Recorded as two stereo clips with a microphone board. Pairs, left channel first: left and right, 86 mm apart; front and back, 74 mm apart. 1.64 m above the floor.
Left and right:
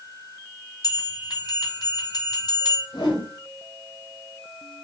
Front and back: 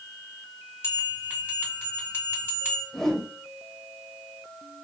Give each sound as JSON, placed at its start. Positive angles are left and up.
{"t": 0.8, "sound": "a bell", "azimuth_deg": 55, "distance_m": 2.5}
{"t": 2.9, "sound": "a whoosh", "azimuth_deg": 80, "distance_m": 2.5}